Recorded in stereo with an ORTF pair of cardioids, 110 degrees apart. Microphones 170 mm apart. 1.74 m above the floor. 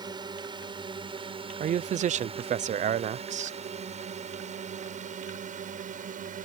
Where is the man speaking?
45° right.